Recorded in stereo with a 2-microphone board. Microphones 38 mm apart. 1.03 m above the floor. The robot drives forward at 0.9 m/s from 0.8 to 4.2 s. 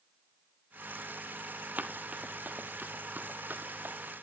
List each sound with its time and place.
1.8 s running footsteps: 50° right (ahead or behind), 1.5 m; by 4.0 s 60° right (ahead or behind), 2.5 m